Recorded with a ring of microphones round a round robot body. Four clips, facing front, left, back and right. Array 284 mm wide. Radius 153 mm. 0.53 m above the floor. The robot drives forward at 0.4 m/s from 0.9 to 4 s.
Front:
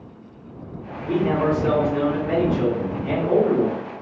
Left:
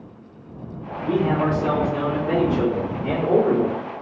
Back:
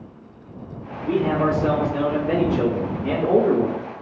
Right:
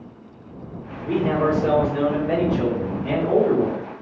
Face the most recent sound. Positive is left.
turn(degrees=140)